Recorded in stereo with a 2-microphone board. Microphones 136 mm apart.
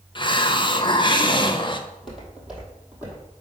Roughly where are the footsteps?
Centre.